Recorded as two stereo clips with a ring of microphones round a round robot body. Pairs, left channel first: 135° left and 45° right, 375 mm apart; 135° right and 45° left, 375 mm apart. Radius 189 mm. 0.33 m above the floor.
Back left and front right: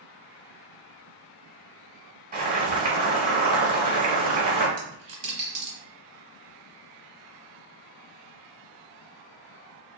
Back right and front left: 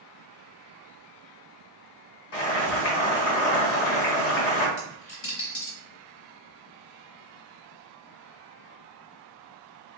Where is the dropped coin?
80° right, 1.1 m.